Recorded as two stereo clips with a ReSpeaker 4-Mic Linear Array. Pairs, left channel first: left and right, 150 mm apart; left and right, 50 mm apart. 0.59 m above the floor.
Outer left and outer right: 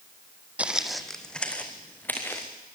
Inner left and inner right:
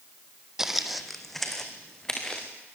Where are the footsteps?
10° right (ahead or behind), 1.3 m; by 2.5 s 15° left (ahead or behind), 3.5 m.